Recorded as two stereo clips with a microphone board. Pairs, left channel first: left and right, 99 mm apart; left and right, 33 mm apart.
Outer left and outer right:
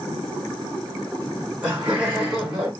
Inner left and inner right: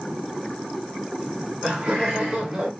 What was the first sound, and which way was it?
Laughter, 20° right (ahead or behind).